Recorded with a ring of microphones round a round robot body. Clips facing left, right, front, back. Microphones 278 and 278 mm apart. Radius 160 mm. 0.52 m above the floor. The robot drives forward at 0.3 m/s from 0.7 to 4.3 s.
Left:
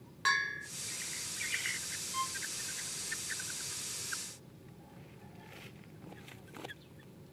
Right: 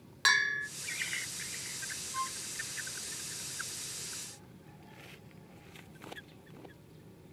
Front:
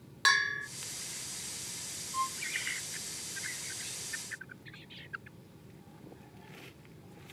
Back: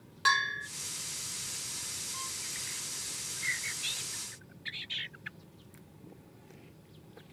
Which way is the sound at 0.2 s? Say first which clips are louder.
Right 2 dB, back 1 dB; 60° right.